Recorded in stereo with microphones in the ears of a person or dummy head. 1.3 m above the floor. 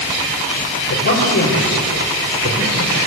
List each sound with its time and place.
0.9 s a man speaking: 65° left (ahead or behind), 6 m